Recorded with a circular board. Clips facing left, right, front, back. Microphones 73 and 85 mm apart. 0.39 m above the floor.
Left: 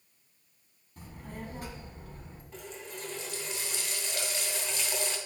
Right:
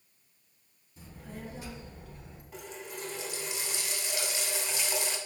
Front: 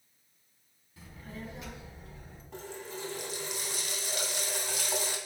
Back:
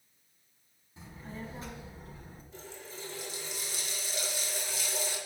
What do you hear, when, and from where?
1.0 s a child speaking: 115° left, 1.7 m; by 2.4 s 140° left, 2.0 m
2.5 s a running tap: 10° right, 2 m